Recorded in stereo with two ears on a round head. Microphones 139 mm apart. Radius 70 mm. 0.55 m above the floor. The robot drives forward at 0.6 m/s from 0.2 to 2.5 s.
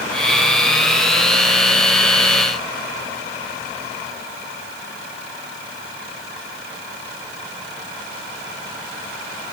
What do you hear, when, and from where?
Only background noise.